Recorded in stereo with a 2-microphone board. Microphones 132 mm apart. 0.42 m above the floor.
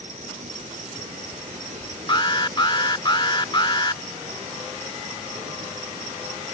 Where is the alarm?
35° left (ahead or behind).